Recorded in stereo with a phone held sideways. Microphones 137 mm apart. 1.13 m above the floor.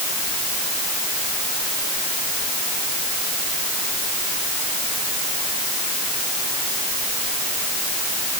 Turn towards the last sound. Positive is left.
No sound to turn to.